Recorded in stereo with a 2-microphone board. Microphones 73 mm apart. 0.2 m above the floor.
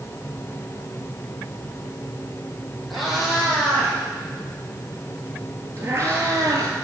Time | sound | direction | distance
2.9 | a cat meowing | 5° right (ahead or behind) | 4 m